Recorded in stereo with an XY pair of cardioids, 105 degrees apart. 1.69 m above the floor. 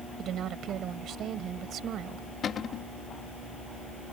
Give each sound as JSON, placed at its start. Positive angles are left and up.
{"t": 0.2, "sound": "a woman speaking", "azimuth_deg": -65}
{"t": 2.4, "sound": "a cupboard door", "azimuth_deg": 50}